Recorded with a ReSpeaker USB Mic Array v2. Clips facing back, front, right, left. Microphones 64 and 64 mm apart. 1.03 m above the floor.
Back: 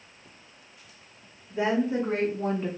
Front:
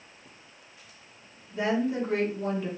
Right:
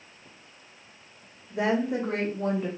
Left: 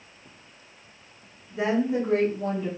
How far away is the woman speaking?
About 1.9 m.